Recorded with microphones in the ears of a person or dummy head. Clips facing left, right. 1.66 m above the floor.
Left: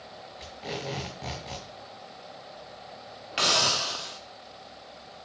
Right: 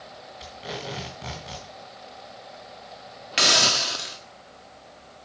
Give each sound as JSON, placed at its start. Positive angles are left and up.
{"t": 0.4, "sound": "tape being pulled", "side_deg": 0, "distance_m": 1.6}
{"t": 3.4, "sound": "a hiss", "side_deg": -20, "distance_m": 0.6}